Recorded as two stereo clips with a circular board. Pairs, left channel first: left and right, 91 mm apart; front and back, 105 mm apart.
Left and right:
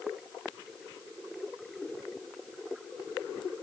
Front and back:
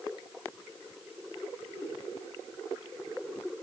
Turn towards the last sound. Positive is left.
No sound to turn to.